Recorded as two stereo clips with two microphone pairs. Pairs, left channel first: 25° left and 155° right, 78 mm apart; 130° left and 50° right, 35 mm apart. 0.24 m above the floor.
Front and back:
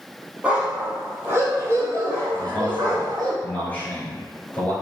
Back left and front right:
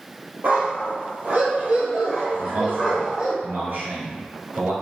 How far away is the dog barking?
About 3 m.